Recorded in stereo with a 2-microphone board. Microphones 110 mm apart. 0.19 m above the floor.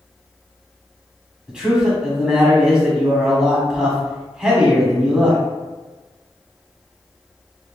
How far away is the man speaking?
About 1.0 m.